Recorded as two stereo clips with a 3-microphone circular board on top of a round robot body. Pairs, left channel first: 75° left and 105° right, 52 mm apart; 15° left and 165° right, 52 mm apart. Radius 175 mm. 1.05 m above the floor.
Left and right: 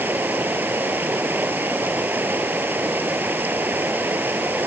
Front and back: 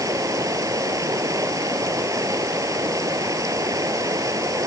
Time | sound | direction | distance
0.0 | running water | 160° right | ?